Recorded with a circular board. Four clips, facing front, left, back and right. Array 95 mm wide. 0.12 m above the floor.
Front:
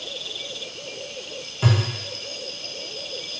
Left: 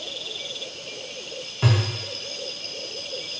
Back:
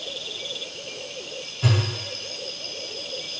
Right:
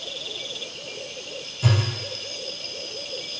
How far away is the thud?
About 2.5 m.